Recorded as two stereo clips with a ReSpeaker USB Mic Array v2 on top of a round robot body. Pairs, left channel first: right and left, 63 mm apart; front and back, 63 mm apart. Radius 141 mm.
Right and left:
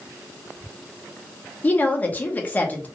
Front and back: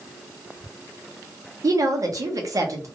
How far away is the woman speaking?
About 0.9 m.